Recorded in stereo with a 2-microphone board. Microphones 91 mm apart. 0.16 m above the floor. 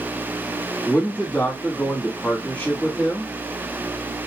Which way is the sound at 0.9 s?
20° left (ahead or behind).